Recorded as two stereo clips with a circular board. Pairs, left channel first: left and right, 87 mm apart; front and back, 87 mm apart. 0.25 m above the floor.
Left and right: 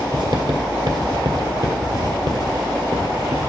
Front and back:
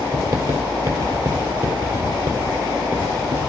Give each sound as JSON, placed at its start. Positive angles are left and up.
{"t": 0.1, "sound": "writing", "azimuth_deg": -125, "distance_m": 1.6}